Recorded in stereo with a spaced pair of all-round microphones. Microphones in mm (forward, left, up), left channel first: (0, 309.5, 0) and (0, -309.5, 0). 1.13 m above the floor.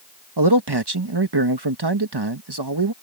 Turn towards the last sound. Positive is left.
turn(degrees=-40)  # may be behind; listen again after turning